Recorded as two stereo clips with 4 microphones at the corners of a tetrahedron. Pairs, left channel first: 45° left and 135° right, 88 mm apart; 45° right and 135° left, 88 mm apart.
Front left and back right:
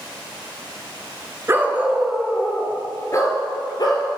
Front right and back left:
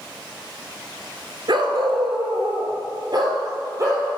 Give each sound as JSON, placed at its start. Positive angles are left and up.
{"t": 1.5, "sound": "a dog barking", "azimuth_deg": 165, "distance_m": 0.9}